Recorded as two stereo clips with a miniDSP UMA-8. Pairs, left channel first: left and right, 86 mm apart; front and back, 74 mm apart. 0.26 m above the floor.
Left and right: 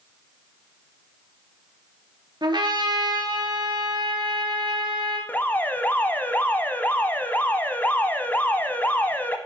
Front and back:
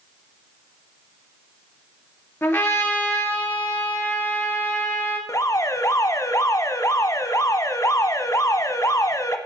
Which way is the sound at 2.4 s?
60° right.